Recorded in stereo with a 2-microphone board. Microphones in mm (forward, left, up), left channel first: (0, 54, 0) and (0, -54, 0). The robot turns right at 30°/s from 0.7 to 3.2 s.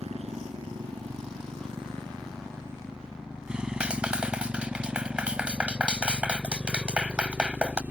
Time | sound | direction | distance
0.0 | a motorcycle | 80° right | ?
3.8 | a clap | 10° right (ahead or behind) | ?